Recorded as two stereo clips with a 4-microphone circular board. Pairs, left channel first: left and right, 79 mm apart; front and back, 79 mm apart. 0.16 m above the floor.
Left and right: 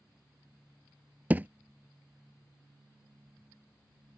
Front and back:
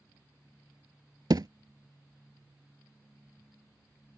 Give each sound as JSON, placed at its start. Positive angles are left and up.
{"t": 1.3, "sound": "a thud", "azimuth_deg": -155}